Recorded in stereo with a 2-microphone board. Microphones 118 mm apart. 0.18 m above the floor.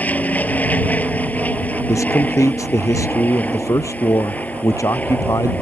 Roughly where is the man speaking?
Left.